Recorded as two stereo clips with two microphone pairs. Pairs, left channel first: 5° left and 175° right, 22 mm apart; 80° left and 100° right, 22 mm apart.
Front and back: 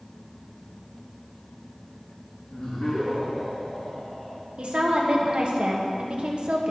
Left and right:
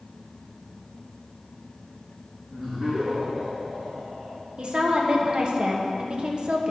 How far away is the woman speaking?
About 1.2 m.